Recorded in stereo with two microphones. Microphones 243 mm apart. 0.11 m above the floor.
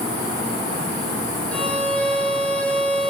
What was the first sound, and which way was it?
A violin, 5° left (ahead or behind).